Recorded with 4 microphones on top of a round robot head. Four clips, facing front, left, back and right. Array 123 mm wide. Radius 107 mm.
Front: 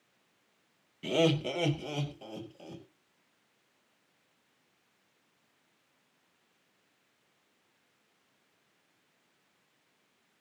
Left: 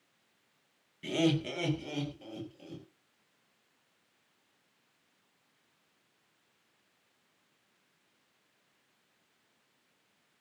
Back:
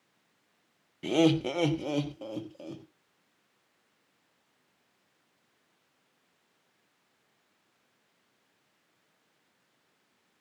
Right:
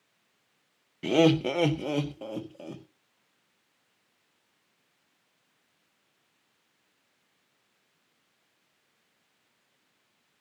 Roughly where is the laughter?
Right.